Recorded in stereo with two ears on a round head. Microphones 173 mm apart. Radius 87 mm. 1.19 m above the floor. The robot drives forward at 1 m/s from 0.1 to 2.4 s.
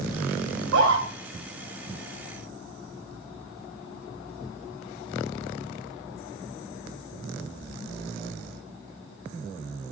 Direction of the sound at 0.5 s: 85° right.